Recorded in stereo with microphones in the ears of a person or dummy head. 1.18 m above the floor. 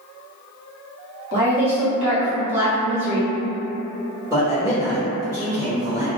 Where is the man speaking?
10° right (ahead or behind), 1.1 m.